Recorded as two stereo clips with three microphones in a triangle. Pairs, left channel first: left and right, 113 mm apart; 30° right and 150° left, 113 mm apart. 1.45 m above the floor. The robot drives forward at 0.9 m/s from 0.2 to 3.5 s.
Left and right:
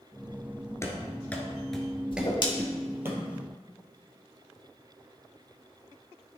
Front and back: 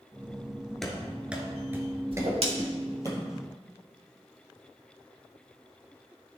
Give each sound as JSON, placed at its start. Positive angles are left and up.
{"t": 0.8, "sound": "running footsteps", "azimuth_deg": 55, "distance_m": 1.6}
{"t": 2.1, "sound": "a whoosh", "azimuth_deg": 120, "distance_m": 1.5}